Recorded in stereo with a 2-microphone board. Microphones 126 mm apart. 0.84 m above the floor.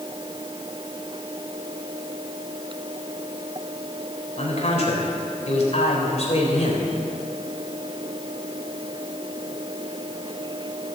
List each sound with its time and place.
4.4 s a man speaking: 60° left (ahead or behind), 3 m